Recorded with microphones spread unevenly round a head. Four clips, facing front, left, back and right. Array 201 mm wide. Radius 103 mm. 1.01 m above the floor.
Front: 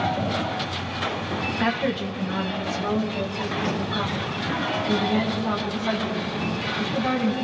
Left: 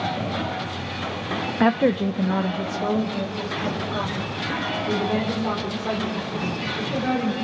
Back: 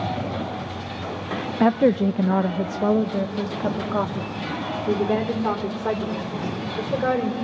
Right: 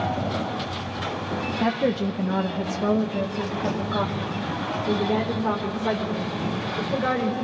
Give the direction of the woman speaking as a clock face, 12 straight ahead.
7 o'clock.